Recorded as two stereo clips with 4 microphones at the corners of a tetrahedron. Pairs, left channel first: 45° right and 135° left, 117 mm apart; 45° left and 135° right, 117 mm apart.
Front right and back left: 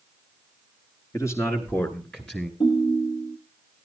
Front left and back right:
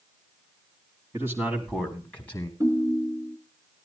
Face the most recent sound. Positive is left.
turn(degrees=-80)